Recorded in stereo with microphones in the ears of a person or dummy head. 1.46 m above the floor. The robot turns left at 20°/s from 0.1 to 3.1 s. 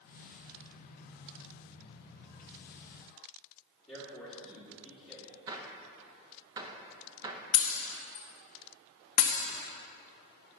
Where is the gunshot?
15° right (ahead or behind), 0.9 m.